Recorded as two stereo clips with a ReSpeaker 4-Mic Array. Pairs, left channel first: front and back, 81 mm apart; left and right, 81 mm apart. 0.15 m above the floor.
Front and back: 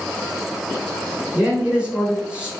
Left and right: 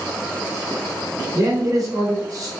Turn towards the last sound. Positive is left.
turn(degrees=-110)